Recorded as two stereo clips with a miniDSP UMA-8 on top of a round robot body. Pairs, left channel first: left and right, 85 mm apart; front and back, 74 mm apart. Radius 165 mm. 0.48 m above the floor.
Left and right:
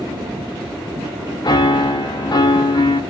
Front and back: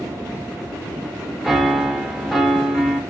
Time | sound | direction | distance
1.4 | a piano | 90° left | 0.9 m